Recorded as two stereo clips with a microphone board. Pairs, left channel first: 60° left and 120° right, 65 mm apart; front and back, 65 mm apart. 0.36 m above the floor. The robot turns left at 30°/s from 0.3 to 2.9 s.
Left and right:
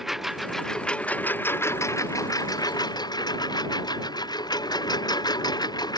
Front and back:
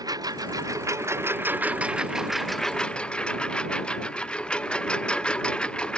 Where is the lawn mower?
155° left; by 6.0 s 75° left.